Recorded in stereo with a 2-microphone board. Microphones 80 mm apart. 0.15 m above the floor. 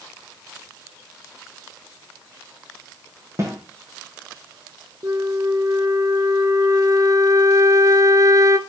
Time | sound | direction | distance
3.4 | a snare drum | 35° right (ahead or behind) | 5.5 m
5.0 | a flute | 45° right (ahead or behind) | 0.8 m